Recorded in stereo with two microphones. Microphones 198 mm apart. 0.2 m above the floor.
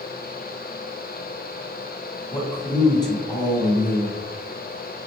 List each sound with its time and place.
2.3 s a man speaking: 20° left (ahead or behind), 1.0 m